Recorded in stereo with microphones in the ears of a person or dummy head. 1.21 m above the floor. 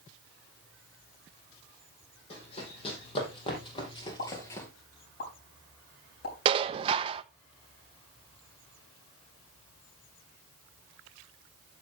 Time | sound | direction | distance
2.3 | running footsteps | 40° left (ahead or behind) | 4 m
4.2 | a pop | 70° left (ahead or behind) | 4 m
6.5 | dishes clattering | 30° right (ahead or behind) | 0.6 m